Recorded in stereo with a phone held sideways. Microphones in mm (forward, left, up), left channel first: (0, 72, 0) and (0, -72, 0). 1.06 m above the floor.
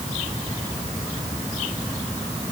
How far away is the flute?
I don't hear a flute.